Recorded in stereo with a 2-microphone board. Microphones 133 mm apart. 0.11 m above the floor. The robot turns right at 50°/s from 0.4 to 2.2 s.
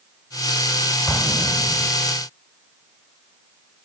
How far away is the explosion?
About 1.2 m.